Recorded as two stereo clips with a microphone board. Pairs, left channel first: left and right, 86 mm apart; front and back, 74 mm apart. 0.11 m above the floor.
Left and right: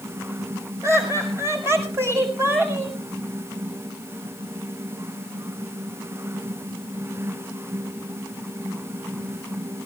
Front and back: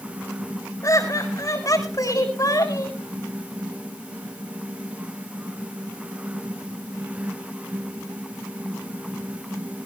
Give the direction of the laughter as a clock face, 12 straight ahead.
1 o'clock.